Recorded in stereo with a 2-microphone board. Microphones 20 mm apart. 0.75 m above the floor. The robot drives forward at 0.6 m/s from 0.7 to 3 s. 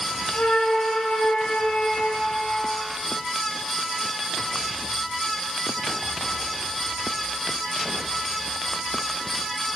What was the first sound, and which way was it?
A flute, 60° left (ahead or behind).